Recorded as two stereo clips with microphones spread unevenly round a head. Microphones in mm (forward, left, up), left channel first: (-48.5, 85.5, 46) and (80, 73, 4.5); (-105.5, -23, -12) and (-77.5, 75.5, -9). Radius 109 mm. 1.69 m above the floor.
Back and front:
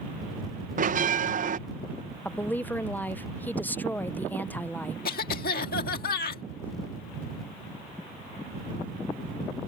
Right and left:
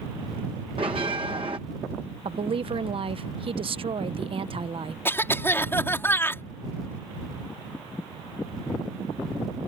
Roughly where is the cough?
Behind.